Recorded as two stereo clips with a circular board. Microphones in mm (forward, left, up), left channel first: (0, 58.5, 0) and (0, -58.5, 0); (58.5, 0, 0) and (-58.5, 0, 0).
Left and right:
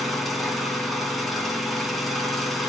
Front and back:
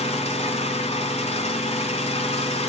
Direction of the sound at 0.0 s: Straight ahead.